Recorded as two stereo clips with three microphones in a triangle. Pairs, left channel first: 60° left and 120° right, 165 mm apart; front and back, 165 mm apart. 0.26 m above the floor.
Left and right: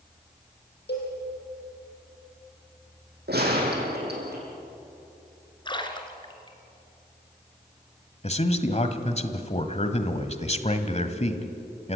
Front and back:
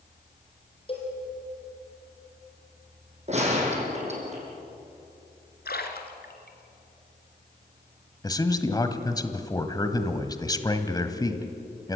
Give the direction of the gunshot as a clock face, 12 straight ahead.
4 o'clock.